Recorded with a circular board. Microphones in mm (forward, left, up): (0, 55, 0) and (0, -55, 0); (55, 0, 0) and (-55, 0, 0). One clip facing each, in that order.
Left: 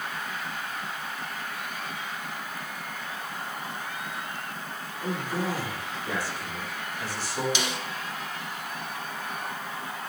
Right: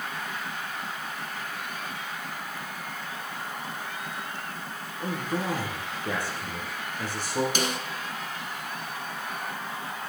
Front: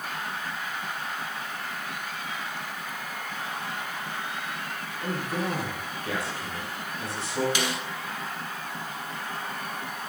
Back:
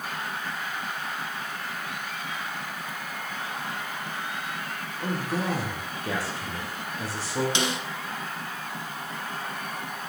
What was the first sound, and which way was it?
A man speaking, 125° right.